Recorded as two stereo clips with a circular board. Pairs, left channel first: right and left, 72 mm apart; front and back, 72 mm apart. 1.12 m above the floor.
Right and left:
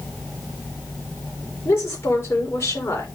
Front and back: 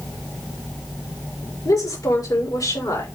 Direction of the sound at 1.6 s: 35° right.